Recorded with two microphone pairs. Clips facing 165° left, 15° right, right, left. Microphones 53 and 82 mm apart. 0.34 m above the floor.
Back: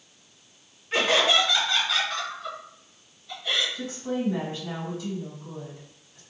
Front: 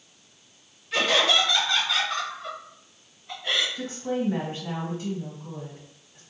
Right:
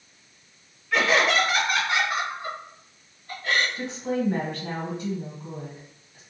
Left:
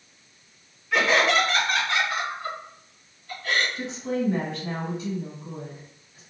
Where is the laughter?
175° left, 1.0 m; by 3.6 s 50° right, 1.3 m.